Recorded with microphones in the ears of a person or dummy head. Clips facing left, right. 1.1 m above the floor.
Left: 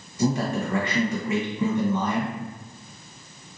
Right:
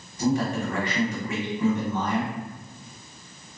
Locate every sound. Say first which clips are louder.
0.2 s a man speaking: even; 65° left (ahead or behind), 0.8 m